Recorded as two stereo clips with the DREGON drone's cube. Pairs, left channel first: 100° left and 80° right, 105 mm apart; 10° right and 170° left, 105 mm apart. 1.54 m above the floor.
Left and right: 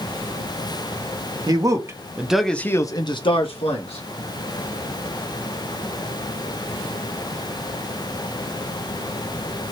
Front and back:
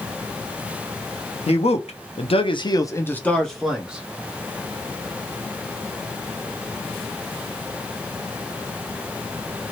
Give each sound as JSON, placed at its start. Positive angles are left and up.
{"t": 1.5, "sound": "a man speaking", "azimuth_deg": -25, "distance_m": 0.9}